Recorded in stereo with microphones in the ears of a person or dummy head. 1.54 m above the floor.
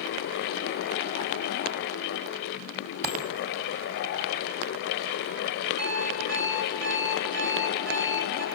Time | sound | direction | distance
3.0 | a dropped coin | 50° right (ahead or behind) | 5 m
5.8 | an alarm clock | 85° right | 9.5 m